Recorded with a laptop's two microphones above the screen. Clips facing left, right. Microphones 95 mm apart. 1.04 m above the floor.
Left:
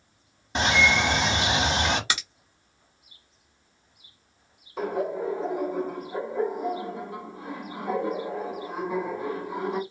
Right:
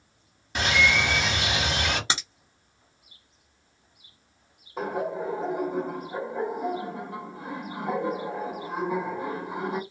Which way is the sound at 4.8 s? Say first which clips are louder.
Left 1 dB; 50° right (ahead or behind).